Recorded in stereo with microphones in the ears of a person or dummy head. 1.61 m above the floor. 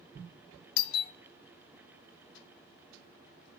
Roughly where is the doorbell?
Left.